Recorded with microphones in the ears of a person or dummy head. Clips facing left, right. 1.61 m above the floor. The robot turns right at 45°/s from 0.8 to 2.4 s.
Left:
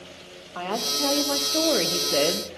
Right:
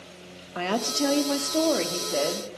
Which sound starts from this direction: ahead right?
A woman speaking, at 0.6 s.